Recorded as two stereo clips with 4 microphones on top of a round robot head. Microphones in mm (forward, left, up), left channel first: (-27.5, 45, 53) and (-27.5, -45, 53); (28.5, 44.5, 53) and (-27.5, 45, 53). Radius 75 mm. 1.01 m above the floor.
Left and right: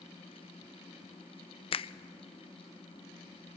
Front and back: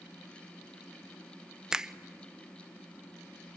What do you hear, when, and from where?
1.7 s a finger snap: 100° left, 0.6 m